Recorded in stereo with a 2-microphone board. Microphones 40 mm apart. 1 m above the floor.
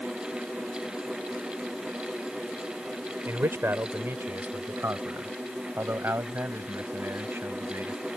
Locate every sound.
3.2 s a man speaking: 70° right (ahead or behind); by 8.1 s 75° right (ahead or behind)